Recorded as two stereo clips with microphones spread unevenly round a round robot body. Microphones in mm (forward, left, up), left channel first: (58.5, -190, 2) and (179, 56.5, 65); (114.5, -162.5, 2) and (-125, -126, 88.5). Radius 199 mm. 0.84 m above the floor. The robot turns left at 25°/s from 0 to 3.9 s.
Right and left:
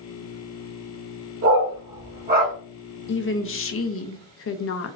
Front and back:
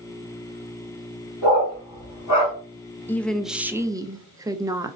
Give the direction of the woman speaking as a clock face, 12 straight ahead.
3 o'clock.